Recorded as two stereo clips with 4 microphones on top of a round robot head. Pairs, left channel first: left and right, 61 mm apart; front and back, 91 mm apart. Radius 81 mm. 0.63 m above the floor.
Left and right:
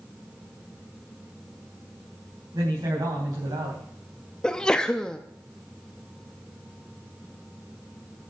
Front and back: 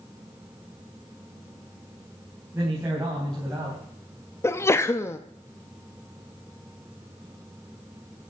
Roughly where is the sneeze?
Ahead left.